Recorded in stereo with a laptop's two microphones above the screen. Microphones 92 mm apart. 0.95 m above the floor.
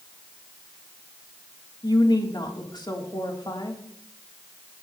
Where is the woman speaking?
50° left (ahead or behind), 3 m.